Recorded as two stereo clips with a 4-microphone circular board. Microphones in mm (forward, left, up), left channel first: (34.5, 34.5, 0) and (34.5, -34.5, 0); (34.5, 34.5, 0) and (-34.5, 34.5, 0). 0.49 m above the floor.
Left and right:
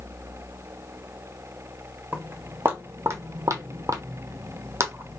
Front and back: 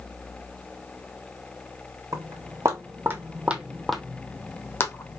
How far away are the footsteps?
About 1.3 m.